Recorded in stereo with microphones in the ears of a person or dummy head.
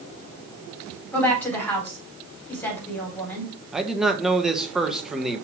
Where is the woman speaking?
15° left (ahead or behind), 4 m.